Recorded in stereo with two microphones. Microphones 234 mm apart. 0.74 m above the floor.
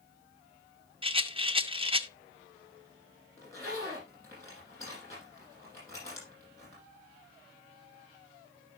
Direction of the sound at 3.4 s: 15° left (ahead or behind).